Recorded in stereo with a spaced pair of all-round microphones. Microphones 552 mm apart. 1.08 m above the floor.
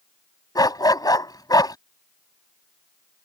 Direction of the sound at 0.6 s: 5° left (ahead or behind).